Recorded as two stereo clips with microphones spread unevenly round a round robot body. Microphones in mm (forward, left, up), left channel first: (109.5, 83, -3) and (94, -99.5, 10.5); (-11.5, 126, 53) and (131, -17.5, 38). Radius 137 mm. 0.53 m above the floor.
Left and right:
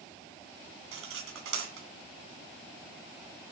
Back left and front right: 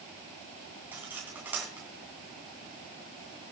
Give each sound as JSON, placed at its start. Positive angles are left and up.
{"t": 0.9, "sound": "cutlery clinking", "azimuth_deg": -130, "distance_m": 2.5}